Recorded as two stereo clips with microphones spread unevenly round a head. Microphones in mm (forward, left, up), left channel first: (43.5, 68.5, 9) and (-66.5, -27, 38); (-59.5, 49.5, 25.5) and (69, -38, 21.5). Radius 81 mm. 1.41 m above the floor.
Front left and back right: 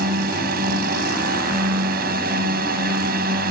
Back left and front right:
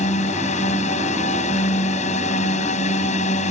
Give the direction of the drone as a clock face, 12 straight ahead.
5 o'clock.